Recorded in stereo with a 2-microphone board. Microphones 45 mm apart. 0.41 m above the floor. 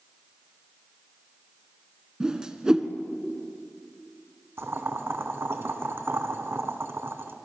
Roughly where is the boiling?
Right.